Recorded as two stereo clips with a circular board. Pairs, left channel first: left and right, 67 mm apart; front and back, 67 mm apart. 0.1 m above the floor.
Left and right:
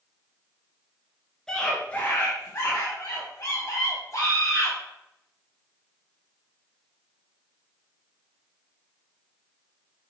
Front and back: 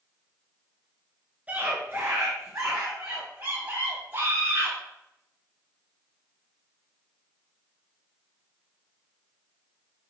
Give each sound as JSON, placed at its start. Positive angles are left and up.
{"t": 1.5, "sound": "a scream", "azimuth_deg": 155, "distance_m": 1.3}